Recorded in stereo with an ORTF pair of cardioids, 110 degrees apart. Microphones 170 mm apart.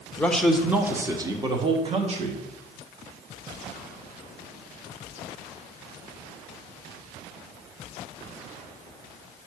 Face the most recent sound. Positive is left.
turn(degrees=-40)